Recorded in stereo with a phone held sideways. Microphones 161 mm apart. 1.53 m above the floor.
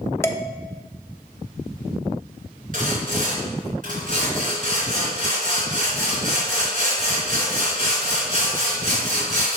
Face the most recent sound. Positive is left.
turn(degrees=-55)  # may be behind; listen again after turning